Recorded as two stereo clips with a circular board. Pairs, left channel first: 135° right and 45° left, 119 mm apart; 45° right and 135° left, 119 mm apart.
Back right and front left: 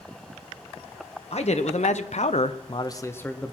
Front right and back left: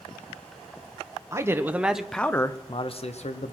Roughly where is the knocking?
I don't hear knocking.